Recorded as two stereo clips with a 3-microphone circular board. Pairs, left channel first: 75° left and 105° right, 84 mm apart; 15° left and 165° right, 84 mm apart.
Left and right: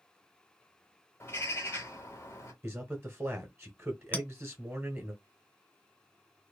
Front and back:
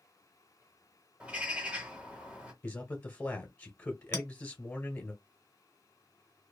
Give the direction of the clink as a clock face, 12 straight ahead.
11 o'clock.